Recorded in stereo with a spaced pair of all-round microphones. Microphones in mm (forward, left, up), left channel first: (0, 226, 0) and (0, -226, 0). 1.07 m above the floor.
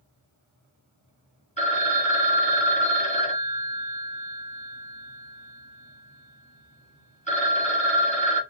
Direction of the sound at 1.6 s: 15° left (ahead or behind).